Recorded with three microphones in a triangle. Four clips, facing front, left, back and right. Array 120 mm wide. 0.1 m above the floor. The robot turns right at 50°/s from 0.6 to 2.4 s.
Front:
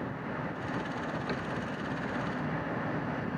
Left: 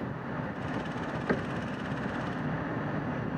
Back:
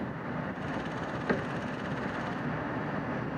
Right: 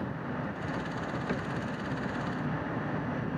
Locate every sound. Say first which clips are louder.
1.3 s a cupboard door: left 6 dB, back 4 dB; 125° left, 0.6 m; by 1.5 s 135° left, 0.6 m